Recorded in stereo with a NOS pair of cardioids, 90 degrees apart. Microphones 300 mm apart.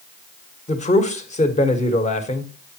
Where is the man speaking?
20° left, 1.5 m.